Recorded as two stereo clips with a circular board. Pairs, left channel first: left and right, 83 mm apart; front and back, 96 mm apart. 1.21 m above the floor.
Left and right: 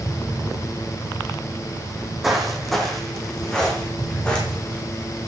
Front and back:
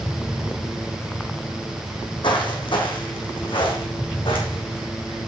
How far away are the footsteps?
About 2.5 m.